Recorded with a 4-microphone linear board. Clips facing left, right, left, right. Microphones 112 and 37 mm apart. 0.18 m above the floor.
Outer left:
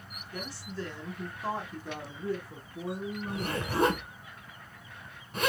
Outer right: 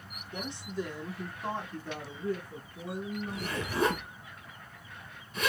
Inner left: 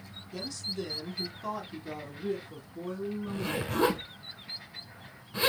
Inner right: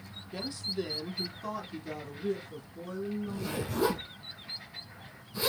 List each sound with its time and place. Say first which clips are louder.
0.3 s a woman speaking: outer right 3 dB, inner right 2 dB; 25° right (ahead or behind), 1.1 m; by 4.0 s 50° left (ahead or behind), 1.7 m
3.3 s a zipper: outer left 2 dB, inner left 2 dB; 50° left (ahead or behind), 1.3 m